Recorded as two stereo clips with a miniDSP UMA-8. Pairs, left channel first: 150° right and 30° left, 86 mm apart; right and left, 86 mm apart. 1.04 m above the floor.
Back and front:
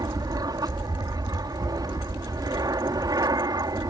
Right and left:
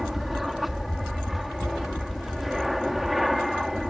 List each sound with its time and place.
0.0 s an aircraft: 5° left